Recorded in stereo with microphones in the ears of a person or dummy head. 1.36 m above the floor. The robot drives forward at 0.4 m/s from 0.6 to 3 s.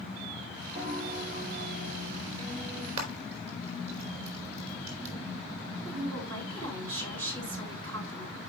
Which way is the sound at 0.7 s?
40° right (ahead or behind).